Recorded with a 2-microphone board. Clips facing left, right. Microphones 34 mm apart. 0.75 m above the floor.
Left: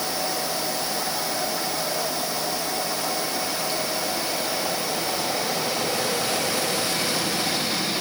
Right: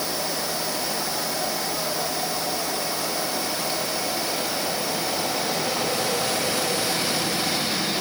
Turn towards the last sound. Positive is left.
No sound to turn to.